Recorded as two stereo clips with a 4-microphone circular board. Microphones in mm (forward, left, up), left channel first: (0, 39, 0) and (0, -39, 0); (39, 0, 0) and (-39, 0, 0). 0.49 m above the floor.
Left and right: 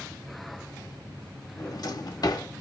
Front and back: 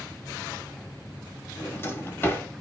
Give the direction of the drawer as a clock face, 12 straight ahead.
10 o'clock.